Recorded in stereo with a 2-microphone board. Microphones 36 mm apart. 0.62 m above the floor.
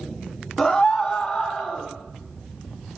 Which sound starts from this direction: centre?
A scream, at 0.6 s.